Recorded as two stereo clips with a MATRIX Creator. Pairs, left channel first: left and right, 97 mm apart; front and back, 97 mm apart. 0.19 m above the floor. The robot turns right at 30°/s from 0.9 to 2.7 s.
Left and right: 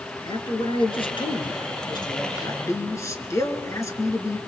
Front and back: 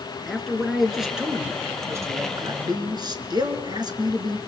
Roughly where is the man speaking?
Left.